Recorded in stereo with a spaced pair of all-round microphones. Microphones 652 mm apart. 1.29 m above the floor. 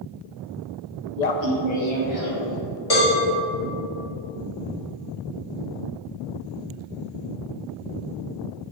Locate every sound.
1.2 s laughter: 90° left, 0.7 m; by 2.6 s 55° left (ahead or behind), 2.5 m
2.9 s a cowbell: 70° left (ahead or behind), 1.8 m